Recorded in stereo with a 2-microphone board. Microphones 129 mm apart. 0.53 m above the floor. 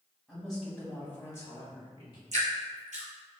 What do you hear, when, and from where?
0.3 s a woman speaking: 5° left (ahead or behind), 1.9 m; by 2.2 s 40° left (ahead or behind), 1.5 m
2.3 s dripping: 75° right (ahead or behind), 1.5 m